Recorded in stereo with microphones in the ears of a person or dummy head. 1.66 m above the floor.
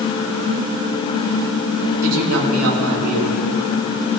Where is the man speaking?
85° right, 3 m.